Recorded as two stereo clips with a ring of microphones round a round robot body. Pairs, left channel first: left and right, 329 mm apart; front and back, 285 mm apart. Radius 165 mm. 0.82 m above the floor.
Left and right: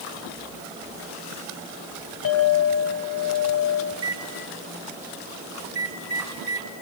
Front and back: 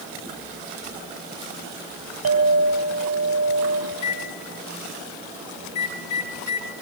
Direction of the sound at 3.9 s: 40° right.